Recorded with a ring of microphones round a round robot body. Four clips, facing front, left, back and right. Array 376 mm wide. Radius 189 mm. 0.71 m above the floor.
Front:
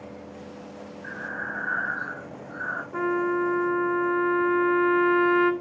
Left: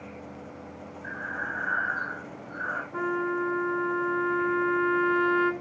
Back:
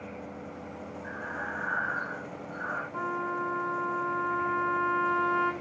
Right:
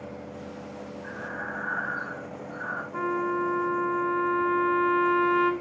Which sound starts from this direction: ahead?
A trumpet, at 2.9 s.